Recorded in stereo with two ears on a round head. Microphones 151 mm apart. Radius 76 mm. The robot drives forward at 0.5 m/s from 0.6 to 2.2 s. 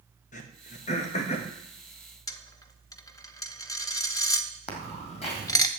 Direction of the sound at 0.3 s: 50° left (ahead or behind).